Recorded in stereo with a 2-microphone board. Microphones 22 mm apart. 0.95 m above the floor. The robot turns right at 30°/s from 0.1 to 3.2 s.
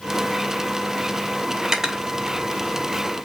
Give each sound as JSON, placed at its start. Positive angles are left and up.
{"t": 1.6, "sound": "cutlery clinking", "side_deg": -25, "distance_m": 0.7}